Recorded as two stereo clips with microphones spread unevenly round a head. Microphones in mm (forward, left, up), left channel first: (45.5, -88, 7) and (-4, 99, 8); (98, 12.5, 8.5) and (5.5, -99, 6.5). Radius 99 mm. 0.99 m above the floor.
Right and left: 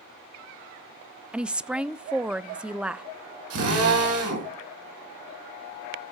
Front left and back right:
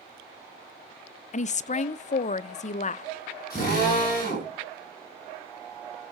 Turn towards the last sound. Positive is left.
turn(degrees=120)